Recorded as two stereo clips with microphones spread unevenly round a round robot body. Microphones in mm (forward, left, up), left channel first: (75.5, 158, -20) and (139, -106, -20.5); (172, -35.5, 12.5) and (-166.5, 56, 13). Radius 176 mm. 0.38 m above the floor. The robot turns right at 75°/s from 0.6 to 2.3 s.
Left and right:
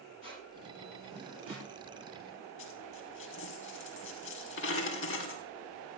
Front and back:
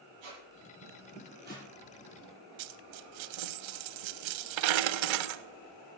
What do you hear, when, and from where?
0.2 s a squeak: 165° left, 6.5 m; by 1.7 s 120° right, 6.5 m
2.6 s a dropped coin: 160° left, 0.8 m